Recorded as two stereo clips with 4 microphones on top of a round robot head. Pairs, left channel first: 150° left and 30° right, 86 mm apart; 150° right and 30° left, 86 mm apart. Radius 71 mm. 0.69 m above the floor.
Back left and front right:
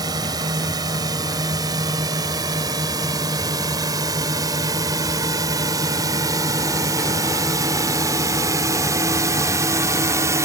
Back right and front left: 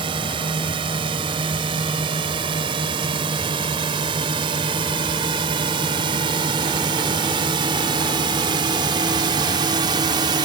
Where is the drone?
10° left; by 10.5 s 15° left.